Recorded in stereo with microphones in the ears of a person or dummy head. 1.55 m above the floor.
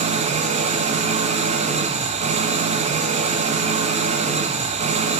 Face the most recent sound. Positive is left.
turn(degrees=-35)  # may be behind; listen again after turning